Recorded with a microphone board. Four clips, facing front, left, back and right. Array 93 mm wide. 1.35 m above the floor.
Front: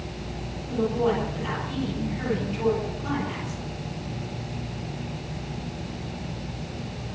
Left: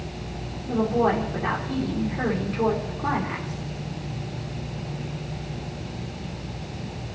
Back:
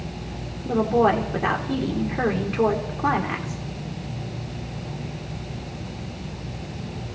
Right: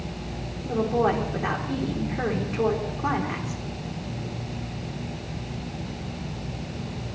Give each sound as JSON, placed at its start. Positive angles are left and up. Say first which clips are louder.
{"t": 0.7, "sound": "a woman speaking", "louder": "left 1 dB, back 5 dB", "azimuth_deg": -170, "distance_m": 3.5}